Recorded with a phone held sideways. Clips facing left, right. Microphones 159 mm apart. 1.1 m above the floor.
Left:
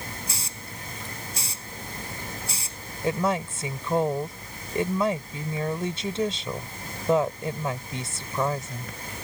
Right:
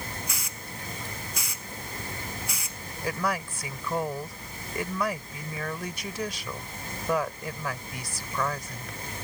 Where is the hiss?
35° left (ahead or behind).